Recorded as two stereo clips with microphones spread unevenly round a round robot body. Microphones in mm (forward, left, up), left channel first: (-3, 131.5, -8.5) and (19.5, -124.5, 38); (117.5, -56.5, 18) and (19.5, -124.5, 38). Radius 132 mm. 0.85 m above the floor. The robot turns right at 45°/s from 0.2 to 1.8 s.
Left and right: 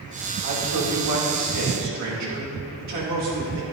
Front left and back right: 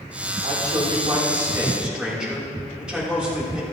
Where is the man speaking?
120° right, 3 m; by 3.6 s 60° right, 3 m.